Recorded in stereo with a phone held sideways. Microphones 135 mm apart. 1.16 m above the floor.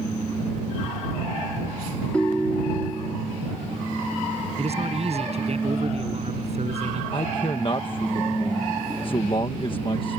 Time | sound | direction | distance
2.1 | a ringtone | 5° left (ahead or behind) | ?
4.6 | a man speaking | 50° right (ahead or behind) | ?
7.1 | a man speaking | 40° left (ahead or behind) | ?